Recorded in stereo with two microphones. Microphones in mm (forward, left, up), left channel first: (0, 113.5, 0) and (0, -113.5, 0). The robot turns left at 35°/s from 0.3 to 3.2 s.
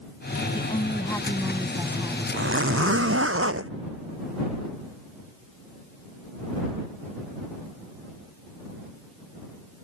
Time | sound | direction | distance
0.5 | a woman speaking | 40° left | ?
2.3 | a zipper | 65° right | ?